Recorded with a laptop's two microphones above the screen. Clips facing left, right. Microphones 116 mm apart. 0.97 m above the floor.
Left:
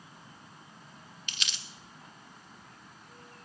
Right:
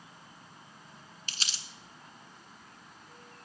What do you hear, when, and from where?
1.3 s crumpling: 40° right (ahead or behind), 0.7 m